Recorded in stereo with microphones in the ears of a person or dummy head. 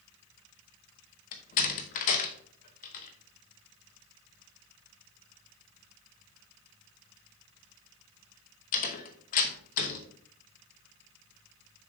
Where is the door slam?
45° left (ahead or behind), 1.0 m.